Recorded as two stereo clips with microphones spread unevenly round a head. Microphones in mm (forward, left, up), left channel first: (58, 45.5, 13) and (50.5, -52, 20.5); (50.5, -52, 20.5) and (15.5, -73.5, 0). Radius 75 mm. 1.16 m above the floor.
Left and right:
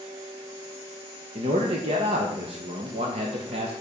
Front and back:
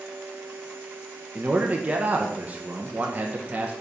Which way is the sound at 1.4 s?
125° right.